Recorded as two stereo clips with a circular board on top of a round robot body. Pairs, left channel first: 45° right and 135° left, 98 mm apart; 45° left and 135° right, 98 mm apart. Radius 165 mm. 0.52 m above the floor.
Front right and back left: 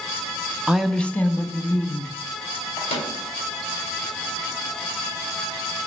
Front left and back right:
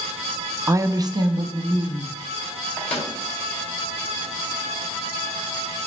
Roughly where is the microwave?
Ahead right.